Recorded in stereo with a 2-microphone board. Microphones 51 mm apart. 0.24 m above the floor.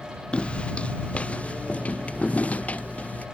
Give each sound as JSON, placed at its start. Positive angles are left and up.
{"t": 0.3, "sound": "footsteps", "side_deg": 20}